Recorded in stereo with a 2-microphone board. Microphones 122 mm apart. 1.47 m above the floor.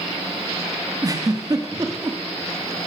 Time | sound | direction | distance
1.0 | a giggle | 30° right (ahead or behind) | 3 m